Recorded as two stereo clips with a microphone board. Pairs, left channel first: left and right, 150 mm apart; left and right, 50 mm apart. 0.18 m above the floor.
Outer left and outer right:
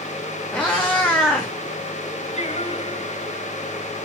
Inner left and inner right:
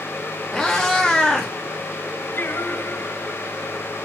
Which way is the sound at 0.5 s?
5° left (ahead or behind).